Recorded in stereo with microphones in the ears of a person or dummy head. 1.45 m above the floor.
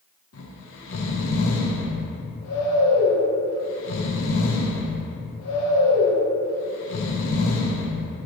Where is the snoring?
80° left, 1.5 m.